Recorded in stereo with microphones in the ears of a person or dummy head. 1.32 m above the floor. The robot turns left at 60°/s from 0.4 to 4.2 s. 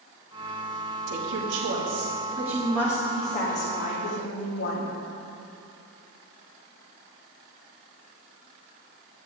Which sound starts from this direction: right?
A woman speaking, at 1.1 s.